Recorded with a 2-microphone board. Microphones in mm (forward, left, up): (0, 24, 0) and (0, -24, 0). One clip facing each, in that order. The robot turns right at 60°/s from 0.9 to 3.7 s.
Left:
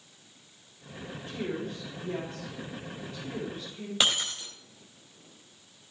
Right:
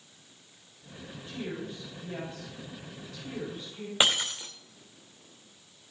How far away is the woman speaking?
About 5 m.